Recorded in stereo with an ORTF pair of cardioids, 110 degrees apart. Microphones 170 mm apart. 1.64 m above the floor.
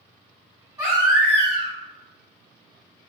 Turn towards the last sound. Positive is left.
turn(degrees=-15)